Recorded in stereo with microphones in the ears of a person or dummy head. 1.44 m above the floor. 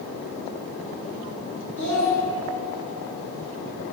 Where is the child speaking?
85° right, 1.4 m.